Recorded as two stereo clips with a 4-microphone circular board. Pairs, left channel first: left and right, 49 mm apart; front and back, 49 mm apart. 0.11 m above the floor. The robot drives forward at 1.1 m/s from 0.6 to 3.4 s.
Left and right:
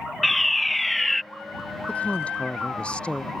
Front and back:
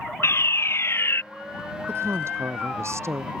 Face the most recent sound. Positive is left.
turn(degrees=160)